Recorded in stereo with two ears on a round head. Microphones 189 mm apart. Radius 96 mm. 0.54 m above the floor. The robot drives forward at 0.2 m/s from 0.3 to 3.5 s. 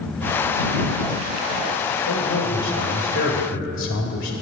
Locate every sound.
2.1 s a man speaking: 60° left (ahead or behind), 2 m; by 4.3 s 65° left (ahead or behind), 2 m